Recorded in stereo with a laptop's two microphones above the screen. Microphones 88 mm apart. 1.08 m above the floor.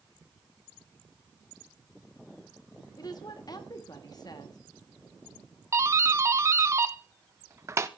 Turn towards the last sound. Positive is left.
turn(degrees=-35)  # may be behind; listen again after turning